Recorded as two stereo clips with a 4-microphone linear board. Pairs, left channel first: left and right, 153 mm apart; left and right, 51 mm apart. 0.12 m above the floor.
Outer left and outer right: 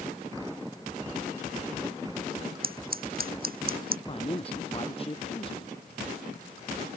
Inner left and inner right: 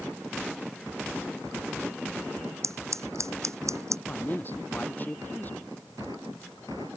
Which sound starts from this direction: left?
A man speaking, at 4.1 s.